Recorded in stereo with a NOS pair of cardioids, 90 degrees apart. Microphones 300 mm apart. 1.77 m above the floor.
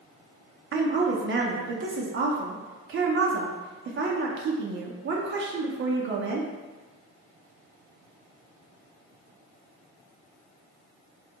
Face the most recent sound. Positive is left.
turn(degrees=-45)